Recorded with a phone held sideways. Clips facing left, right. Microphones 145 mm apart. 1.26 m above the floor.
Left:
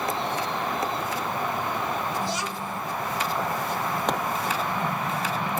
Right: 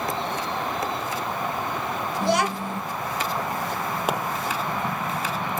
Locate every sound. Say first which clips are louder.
2.2 s a child speaking: right 7 dB; 65° right (ahead or behind), 0.6 m
4.1 s a pop: right 1 dB; 10° right (ahead or behind), 1.5 m